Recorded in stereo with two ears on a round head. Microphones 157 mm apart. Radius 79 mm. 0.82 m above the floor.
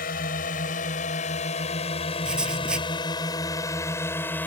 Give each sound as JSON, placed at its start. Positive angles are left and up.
{"t": 0.0, "sound": "a drone", "side_deg": 50}
{"t": 2.2, "sound": "writing", "side_deg": -5}